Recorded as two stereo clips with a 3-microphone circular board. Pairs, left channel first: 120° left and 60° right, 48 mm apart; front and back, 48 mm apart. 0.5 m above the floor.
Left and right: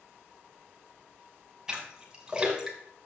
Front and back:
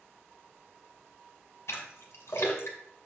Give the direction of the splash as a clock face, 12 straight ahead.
11 o'clock.